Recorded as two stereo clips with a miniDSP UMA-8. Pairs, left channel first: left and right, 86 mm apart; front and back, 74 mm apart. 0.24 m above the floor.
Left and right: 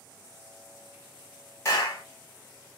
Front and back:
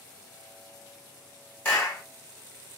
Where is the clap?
50° left, 1.6 m.